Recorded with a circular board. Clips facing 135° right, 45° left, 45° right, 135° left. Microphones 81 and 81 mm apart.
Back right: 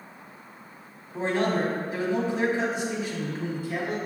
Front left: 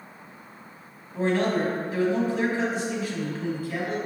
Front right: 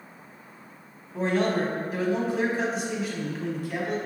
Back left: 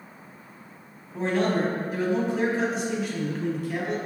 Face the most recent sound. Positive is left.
turn(degrees=-130)